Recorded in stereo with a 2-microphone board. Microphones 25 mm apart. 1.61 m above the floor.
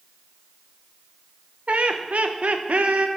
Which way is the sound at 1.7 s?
70° right (ahead or behind).